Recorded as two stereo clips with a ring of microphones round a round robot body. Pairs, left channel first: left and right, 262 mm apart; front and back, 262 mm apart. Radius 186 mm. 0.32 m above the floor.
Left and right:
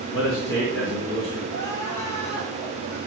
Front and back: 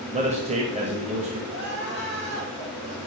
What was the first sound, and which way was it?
A man speaking, 125° left.